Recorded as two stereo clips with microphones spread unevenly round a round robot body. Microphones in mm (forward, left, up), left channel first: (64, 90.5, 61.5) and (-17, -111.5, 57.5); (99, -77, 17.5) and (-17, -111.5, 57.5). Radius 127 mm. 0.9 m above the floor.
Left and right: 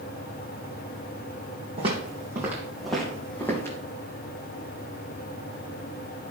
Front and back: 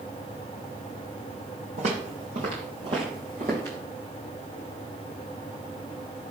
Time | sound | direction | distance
1.8 | footsteps | straight behind | 2.5 m